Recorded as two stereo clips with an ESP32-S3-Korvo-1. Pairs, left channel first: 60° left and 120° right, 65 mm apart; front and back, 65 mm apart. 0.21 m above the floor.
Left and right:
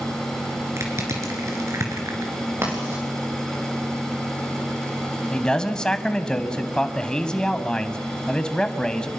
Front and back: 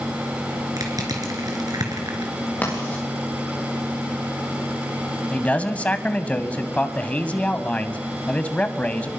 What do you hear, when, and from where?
0.8 s crushing: 160° right, 3.5 m
2.6 s writing: 65° right, 7.5 m
5.3 s a man speaking: 5° left, 1.3 m